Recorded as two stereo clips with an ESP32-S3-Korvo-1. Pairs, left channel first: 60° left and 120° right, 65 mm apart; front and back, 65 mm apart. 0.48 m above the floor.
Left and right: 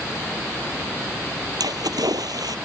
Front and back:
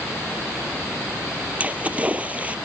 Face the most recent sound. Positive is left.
turn(degrees=-110)